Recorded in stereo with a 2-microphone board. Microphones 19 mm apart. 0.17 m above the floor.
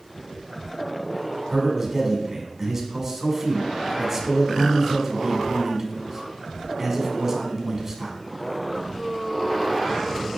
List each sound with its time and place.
1.5 s a man speaking: 20° right (ahead or behind), 1.1 m